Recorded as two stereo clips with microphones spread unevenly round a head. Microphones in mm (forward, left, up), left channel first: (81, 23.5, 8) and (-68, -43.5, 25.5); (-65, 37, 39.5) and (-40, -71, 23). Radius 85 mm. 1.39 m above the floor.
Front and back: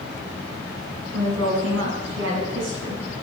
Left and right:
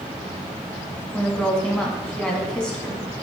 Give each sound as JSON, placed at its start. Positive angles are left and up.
{"t": 1.1, "sound": "a woman speaking", "azimuth_deg": 180, "distance_m": 2.5}